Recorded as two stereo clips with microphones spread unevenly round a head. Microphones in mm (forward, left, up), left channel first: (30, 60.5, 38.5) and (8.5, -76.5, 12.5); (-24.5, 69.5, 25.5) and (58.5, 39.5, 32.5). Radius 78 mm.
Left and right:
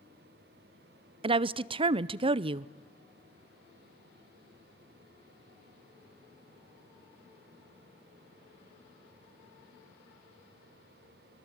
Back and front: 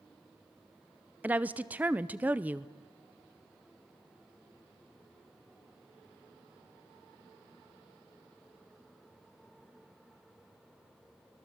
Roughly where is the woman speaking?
Right.